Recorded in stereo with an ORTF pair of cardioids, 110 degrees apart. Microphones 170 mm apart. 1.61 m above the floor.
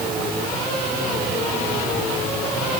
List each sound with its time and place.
Only background noise.